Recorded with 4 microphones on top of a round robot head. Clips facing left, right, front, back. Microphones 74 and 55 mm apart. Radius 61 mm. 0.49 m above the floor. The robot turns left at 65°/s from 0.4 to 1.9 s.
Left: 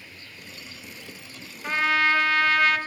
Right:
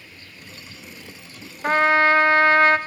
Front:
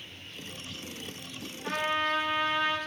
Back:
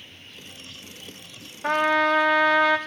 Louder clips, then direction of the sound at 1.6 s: Right 6 dB, back 9 dB; 135° right.